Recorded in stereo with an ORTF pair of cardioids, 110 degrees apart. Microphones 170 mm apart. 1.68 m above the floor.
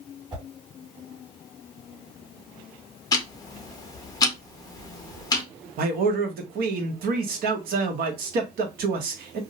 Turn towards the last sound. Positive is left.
turn(degrees=-60)